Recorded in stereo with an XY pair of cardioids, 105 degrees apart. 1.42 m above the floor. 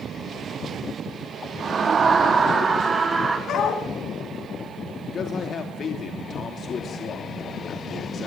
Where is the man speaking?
50° left, 3 m.